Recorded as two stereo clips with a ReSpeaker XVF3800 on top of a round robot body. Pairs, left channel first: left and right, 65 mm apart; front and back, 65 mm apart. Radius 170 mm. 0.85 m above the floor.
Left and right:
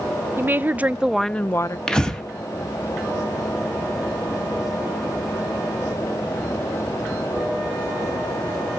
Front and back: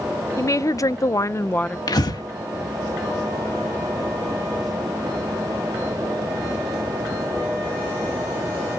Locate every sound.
0.4 s a woman speaking: 35° right, 1.0 m; by 1.8 s 70° left, 0.6 m
1.9 s breathing: 10° left, 1.3 m